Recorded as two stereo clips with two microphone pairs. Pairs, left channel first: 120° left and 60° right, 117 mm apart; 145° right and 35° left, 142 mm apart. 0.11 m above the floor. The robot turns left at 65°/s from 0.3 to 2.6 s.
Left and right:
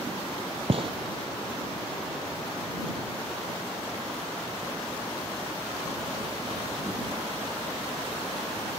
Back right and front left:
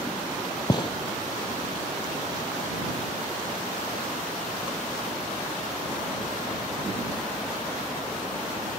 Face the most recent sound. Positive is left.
turn(degrees=155)